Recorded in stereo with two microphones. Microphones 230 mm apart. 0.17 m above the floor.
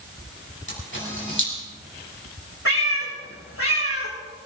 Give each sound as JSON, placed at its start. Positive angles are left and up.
{"t": 0.7, "sound": "a camera shutter", "side_deg": 60, "distance_m": 7.0}
{"t": 2.6, "sound": "a cat meowing", "side_deg": 80, "distance_m": 4.5}